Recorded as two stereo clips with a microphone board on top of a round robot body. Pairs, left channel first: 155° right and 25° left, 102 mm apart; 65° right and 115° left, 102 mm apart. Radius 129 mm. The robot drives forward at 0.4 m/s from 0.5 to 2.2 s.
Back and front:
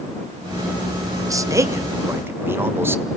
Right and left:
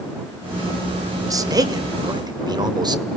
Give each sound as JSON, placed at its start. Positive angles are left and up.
{"t": 1.3, "sound": "a man speaking", "azimuth_deg": 70, "distance_m": 1.9}